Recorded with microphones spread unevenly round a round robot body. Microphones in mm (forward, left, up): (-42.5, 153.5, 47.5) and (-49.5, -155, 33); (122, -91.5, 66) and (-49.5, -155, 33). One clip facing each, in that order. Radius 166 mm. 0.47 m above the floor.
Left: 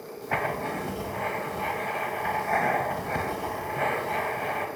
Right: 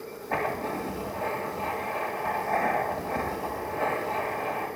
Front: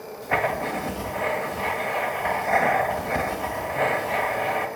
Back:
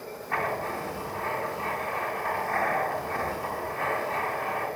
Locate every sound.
0.2 s writing: 25° left, 1.9 m